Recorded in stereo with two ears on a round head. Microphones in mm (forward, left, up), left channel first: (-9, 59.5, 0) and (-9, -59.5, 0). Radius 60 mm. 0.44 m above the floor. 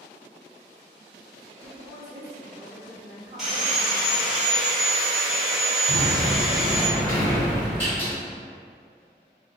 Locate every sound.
1.6 s a woman speaking: 30° right (ahead or behind), 1.1 m
3.4 s sawing: 5° right (ahead or behind), 1.3 m
5.9 s a sliding door: 10° left (ahead or behind), 1.9 m